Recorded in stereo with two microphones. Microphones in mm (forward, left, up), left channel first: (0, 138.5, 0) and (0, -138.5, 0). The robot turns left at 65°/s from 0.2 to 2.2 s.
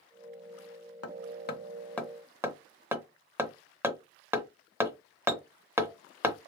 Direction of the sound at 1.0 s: 60° left (ahead or behind).